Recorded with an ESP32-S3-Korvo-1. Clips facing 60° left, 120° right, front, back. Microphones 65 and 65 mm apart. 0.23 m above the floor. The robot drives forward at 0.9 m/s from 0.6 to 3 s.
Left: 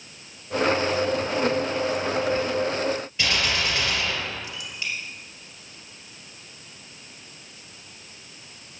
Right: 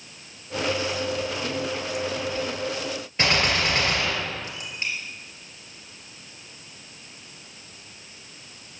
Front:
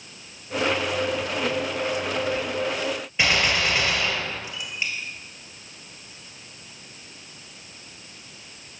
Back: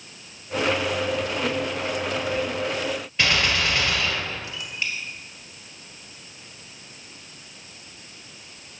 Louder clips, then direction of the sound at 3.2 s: Right 5 dB, front 1 dB; 80° right.